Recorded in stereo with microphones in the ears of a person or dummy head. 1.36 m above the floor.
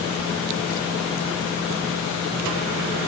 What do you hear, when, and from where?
Only background noise.